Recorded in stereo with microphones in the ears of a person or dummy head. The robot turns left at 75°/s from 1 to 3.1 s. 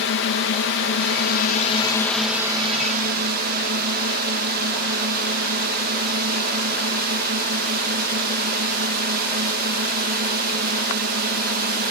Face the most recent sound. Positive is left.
turn(degrees=-65)